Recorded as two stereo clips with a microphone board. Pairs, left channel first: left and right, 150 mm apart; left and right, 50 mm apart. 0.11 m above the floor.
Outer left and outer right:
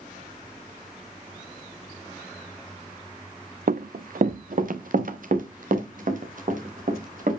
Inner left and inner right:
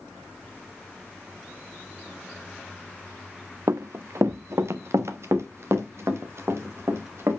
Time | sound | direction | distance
3.7 | running footsteps | 75° right (ahead or behind) | 0.6 m